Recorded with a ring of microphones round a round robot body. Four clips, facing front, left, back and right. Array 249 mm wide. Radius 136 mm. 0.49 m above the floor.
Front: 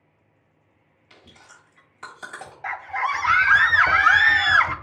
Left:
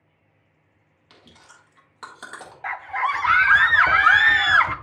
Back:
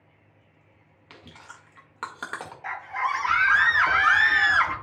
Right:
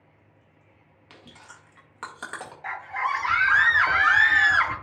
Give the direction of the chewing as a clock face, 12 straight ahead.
5 o'clock.